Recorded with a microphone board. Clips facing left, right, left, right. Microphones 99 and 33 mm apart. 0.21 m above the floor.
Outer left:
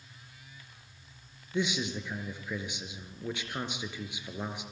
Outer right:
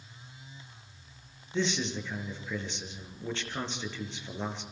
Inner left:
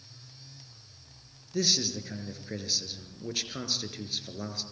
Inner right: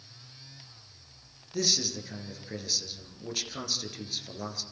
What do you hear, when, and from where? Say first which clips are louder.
1.5 s a man speaking: outer right 1 dB, inner left 1 dB; 10° left (ahead or behind), 4 m